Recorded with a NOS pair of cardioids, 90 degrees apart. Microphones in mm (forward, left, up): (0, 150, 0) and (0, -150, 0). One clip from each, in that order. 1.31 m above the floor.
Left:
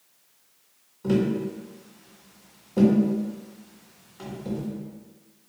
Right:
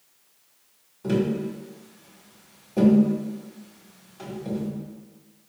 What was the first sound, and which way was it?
Tapping, straight ahead.